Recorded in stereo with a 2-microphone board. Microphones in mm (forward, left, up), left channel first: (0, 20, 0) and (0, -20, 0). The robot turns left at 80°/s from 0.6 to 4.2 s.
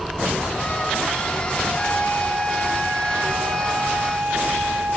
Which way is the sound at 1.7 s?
90° left.